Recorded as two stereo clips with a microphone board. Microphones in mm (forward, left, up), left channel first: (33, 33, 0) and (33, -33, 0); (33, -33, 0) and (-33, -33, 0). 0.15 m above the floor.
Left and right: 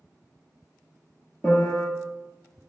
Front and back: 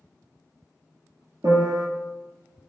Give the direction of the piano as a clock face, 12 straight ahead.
6 o'clock.